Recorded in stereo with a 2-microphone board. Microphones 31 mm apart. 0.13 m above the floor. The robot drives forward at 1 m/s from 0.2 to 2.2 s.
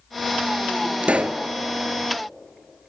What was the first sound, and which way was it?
A pop, 45° right (ahead or behind).